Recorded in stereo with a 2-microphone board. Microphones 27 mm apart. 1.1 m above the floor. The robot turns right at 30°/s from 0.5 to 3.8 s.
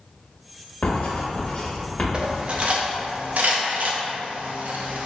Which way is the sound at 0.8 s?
65° left (ahead or behind).